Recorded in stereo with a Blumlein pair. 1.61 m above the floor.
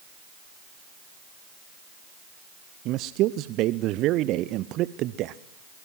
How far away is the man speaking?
About 0.6 m.